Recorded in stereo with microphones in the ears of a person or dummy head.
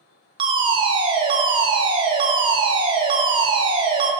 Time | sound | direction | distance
0.4 | a fire alarm | 25° right (ahead or behind) | 1.0 m